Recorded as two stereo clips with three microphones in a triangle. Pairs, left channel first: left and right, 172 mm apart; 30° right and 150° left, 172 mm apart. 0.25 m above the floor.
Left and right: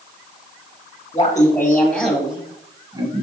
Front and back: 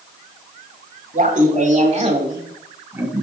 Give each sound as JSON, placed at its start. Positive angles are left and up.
{"t": 1.1, "sound": "laughter", "azimuth_deg": 145, "distance_m": 1.6}